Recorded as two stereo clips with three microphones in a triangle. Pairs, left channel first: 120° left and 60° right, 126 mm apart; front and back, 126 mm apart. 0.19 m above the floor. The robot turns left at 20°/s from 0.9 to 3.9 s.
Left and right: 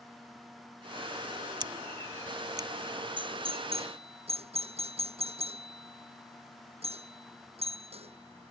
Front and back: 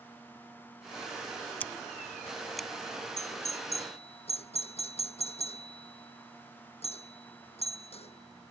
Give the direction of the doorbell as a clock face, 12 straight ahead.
12 o'clock.